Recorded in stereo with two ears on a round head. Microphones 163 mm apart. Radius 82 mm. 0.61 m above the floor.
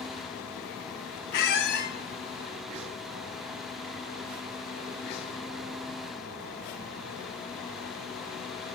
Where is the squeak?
55° left (ahead or behind), 0.7 m.